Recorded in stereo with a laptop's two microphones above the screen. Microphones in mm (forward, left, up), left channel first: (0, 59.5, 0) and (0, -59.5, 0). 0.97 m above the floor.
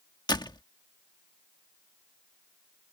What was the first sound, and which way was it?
A door slam, 35° left (ahead or behind).